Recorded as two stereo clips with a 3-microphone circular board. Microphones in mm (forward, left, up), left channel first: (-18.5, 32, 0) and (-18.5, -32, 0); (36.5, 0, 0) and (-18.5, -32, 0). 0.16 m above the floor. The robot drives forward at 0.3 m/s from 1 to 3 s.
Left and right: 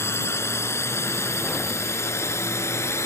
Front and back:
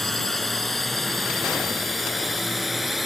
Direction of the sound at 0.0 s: 115° left.